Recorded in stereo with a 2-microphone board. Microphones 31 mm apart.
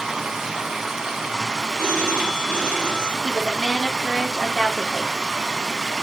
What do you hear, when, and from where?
0.0 s running water: 15° right (ahead or behind), 0.8 m
1.8 s a phone ringing: 65° left (ahead or behind), 1.7 m
3.2 s a woman speaking: 5° right (ahead or behind), 1.2 m